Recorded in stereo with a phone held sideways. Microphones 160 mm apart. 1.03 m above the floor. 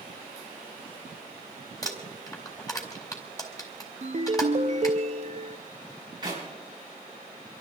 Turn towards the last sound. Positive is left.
turn(degrees=-30)  # may be behind; listen again after turning